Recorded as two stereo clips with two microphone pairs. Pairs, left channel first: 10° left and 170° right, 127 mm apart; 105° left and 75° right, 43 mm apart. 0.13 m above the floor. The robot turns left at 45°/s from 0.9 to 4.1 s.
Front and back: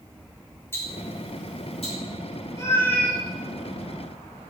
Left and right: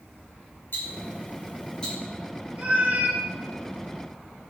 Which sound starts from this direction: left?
Ticking, at 0.7 s.